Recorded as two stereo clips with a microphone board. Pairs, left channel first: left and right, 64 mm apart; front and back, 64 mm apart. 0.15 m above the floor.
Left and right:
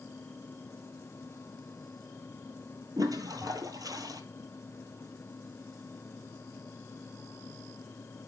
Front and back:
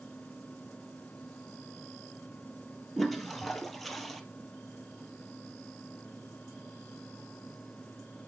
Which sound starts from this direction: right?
A toilet flushing, at 3.0 s.